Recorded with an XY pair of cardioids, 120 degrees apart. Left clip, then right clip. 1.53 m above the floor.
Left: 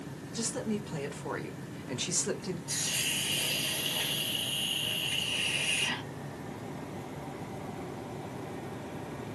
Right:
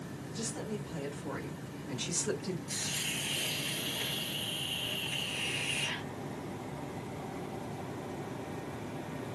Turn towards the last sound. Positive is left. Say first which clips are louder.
# left 5 dB
turn(degrees=55)